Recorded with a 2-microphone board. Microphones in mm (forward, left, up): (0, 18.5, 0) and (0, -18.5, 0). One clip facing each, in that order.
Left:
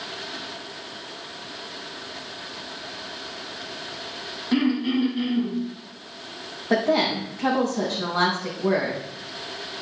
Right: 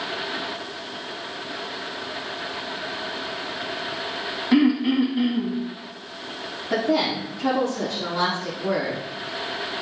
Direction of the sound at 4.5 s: 10° right (ahead or behind).